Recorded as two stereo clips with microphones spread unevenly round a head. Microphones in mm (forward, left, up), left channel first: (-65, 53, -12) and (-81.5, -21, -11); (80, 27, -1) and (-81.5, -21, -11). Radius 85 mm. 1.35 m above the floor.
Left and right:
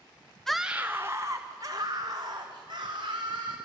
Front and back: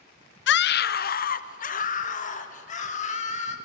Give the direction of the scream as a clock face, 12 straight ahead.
12 o'clock.